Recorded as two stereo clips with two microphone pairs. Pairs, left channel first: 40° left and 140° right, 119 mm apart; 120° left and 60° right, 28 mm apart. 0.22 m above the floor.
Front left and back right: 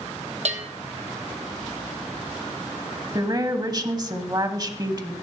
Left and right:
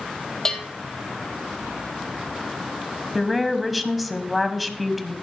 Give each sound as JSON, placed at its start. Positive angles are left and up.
{"t": 0.5, "sound": "a bell", "azimuth_deg": -165, "distance_m": 1.3}
{"t": 3.1, "sound": "a woman speaking", "azimuth_deg": -140, "distance_m": 1.1}